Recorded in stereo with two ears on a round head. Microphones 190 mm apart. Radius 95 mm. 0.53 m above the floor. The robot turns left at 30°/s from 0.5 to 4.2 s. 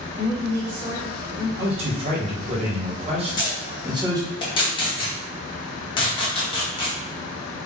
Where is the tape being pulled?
20° left (ahead or behind), 1.0 m; by 7.0 s 25° left (ahead or behind), 1.0 m.